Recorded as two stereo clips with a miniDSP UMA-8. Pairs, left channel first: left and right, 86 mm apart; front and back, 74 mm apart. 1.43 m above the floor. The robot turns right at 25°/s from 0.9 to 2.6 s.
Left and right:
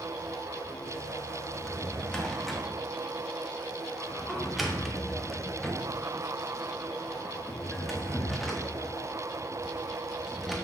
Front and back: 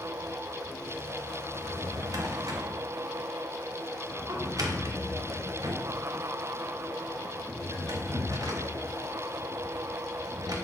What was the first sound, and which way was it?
A drawer, 155° left.